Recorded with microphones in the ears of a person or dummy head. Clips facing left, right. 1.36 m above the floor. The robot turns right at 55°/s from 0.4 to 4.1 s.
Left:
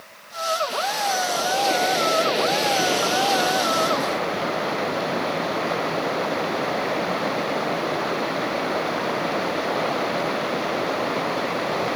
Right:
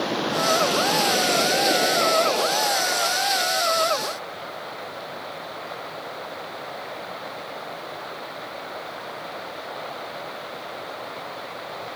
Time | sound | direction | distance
0.0 | running water | 90° right | ?